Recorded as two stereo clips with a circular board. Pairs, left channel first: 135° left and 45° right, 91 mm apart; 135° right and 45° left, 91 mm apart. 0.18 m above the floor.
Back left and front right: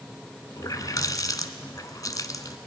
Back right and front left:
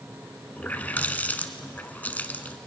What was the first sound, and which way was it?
A running tap, 160° left.